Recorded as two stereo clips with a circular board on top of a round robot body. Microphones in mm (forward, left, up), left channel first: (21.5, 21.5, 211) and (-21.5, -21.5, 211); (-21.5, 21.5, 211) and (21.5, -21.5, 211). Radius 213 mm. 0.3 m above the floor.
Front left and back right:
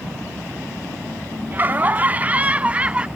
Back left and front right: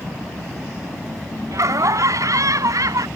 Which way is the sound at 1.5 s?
75° right.